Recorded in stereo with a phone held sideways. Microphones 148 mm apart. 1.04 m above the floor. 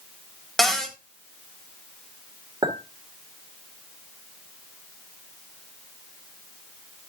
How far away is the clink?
About 2 m.